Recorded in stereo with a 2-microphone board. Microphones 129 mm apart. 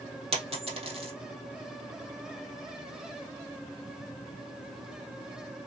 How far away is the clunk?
I don't hear a clunk.